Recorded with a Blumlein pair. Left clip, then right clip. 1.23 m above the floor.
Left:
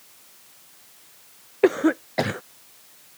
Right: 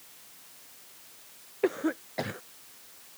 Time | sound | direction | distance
1.6 | a cough | 25° left | ?